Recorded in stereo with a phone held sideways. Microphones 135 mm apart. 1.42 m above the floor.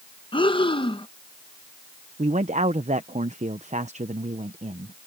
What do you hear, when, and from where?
0.3 s breathing: 35° left (ahead or behind)
2.2 s a man speaking: 55° right (ahead or behind)